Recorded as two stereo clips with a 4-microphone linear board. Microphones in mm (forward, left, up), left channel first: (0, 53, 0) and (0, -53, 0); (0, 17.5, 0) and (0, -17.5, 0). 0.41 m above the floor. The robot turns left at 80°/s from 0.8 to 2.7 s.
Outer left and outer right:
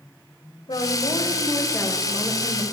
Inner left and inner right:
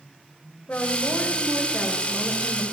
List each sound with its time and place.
0.7 s a woman speaking: 100° left, 1.5 m; by 2.6 s 45° right, 1.5 m